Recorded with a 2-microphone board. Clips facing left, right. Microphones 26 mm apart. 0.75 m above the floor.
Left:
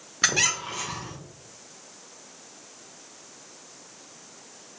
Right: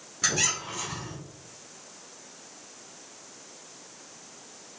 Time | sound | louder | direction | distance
0.2 | a squeak | left 4 dB | 50° left (ahead or behind) | 0.8 m